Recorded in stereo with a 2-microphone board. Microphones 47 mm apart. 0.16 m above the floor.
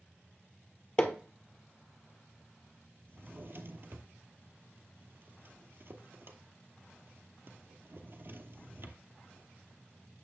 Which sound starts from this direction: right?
A drawer, at 3.1 s.